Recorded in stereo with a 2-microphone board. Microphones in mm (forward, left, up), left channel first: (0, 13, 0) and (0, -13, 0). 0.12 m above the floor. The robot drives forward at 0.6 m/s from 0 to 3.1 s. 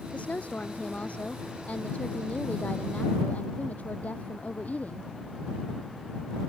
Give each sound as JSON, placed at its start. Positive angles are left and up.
{"t": 0.1, "sound": "a woman speaking", "side_deg": 55}